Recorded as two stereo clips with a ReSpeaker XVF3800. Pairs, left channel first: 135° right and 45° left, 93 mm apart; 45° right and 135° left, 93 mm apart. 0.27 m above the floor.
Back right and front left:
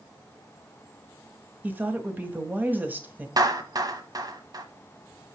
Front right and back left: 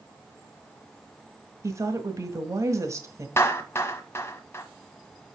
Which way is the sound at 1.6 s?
105° left.